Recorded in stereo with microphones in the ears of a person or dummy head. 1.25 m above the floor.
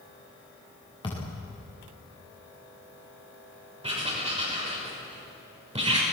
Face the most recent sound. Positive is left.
turn(degrees=-25)  # may be behind; listen again after turning